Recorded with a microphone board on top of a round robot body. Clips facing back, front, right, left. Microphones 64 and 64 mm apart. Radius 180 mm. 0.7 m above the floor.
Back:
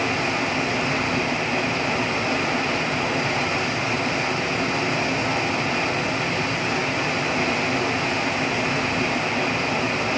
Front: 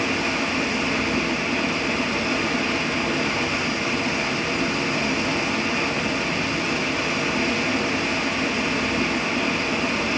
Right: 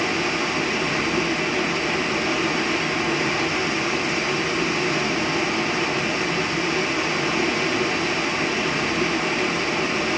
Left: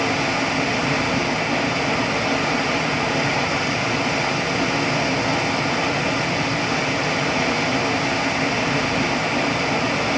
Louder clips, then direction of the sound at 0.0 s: Even, left 2 dB; 140° left.